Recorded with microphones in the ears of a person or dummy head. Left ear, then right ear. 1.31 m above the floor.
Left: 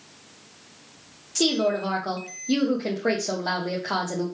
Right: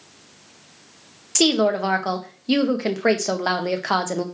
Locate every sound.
1.4 s a woman speaking: 55° right (ahead or behind), 0.7 m